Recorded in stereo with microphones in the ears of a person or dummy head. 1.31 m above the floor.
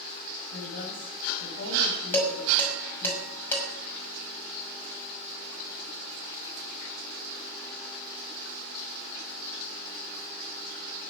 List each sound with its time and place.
0.5 s a woman speaking: 65° left (ahead or behind), 7.5 m
2.1 s dishes clattering: 15° left (ahead or behind), 6 m